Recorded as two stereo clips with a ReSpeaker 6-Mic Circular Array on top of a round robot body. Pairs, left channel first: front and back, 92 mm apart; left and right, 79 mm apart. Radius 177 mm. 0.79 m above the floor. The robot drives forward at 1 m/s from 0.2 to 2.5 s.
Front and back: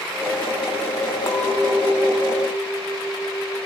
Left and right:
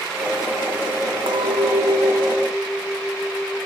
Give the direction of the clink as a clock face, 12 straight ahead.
2 o'clock.